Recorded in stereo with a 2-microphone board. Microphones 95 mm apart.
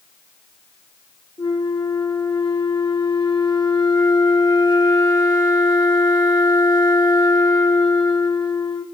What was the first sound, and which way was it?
A flute, 55° left (ahead or behind).